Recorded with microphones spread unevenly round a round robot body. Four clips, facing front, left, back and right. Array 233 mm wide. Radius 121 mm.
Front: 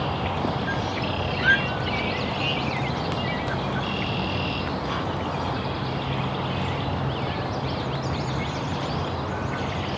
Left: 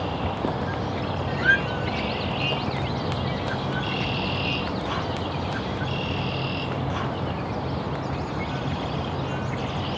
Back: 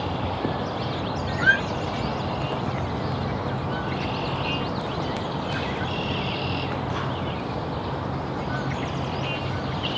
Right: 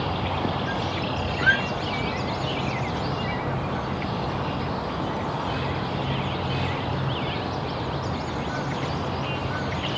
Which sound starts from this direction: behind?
A squeak, at 1.4 s.